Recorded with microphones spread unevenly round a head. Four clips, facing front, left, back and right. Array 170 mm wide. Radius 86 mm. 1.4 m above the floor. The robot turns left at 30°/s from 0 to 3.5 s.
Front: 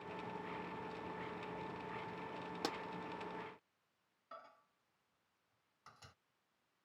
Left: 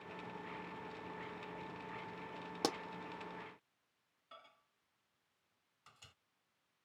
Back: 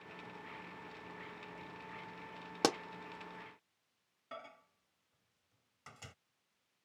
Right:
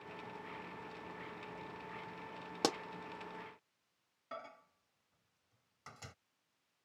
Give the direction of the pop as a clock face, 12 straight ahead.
5 o'clock.